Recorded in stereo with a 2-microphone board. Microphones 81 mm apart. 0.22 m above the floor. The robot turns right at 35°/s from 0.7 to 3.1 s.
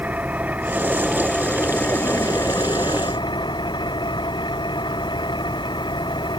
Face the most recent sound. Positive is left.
turn(degrees=65)